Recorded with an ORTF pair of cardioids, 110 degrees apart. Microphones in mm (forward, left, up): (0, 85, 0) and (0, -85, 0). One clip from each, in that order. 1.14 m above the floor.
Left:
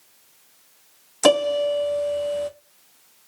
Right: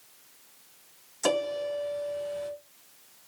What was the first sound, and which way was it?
A piano, 60° left.